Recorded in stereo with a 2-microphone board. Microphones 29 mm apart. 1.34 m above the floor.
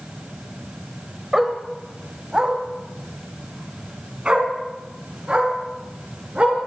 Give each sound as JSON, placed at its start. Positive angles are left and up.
{"t": 1.3, "sound": "a dog barking", "side_deg": -20, "distance_m": 2.0}